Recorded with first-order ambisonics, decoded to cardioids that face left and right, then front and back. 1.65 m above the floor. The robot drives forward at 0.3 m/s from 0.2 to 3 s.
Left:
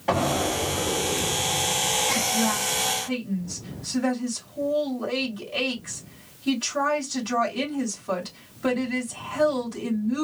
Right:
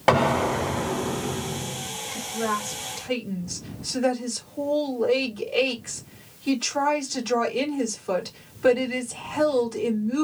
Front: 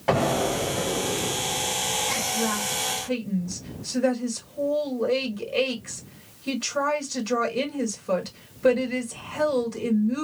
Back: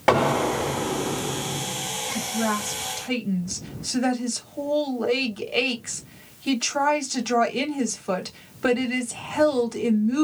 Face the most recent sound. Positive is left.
turn(degrees=-170)